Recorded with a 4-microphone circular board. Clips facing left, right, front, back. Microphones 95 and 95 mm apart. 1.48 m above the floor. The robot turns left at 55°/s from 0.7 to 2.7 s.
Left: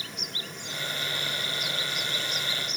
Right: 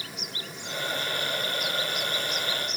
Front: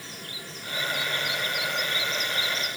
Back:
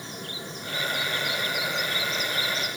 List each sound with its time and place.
Only background noise.